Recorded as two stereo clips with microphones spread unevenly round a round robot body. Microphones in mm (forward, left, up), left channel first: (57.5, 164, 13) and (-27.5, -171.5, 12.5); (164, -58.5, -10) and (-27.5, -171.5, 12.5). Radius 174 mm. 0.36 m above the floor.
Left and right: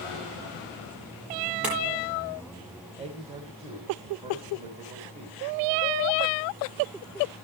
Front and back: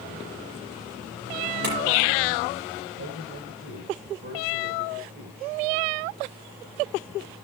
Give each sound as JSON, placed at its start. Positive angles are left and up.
{"t": 1.6, "sound": "a clink", "azimuth_deg": 170, "distance_m": 8.5}
{"t": 3.0, "sound": "a man speaking", "azimuth_deg": -175, "distance_m": 2.0}